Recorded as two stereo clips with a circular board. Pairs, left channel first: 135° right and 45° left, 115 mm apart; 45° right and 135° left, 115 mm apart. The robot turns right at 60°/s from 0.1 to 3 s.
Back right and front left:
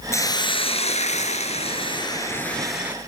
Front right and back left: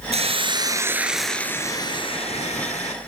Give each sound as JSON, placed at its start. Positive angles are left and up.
{"t": 0.1, "sound": "a hiss", "azimuth_deg": 160, "distance_m": 2.5}